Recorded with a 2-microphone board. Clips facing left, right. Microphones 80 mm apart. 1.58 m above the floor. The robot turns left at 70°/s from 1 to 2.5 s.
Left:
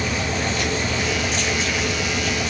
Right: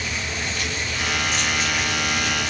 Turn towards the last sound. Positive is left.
No sound to turn to.